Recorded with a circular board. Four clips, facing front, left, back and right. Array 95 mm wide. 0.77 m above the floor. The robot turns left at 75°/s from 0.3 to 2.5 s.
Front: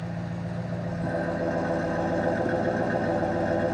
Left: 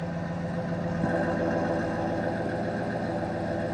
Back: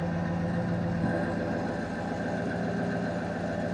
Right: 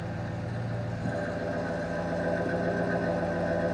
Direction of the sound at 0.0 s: 155° left.